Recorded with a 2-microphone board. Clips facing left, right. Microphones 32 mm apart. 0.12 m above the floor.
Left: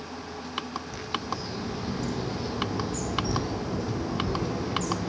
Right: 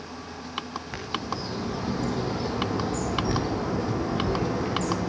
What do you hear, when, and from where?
0.9 s a bird: 45° right (ahead or behind), 5 m